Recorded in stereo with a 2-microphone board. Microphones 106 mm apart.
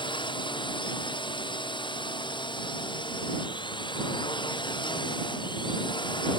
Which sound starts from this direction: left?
A drone, at 0.0 s.